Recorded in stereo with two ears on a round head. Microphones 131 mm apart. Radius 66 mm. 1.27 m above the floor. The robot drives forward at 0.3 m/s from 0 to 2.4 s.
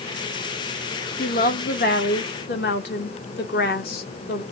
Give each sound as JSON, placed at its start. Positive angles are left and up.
{"t": 1.2, "sound": "a woman speaking", "side_deg": 55, "distance_m": 1.3}